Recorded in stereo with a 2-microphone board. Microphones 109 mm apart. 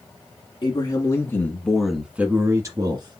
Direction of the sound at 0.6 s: 40° left (ahead or behind).